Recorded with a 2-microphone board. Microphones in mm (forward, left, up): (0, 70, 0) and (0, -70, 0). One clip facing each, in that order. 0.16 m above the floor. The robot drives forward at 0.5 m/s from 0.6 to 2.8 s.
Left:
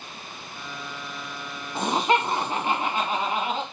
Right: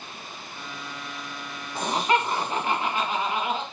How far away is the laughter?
About 1.3 m.